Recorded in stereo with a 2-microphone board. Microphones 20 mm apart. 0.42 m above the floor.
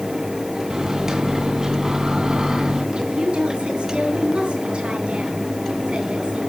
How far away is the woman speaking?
About 6.5 m.